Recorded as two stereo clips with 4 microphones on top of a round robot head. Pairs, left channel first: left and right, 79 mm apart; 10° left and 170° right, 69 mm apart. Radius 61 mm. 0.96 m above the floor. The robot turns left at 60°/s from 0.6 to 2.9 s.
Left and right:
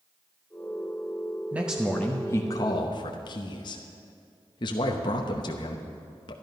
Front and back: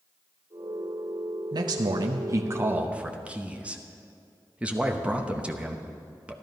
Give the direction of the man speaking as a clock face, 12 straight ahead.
5 o'clock.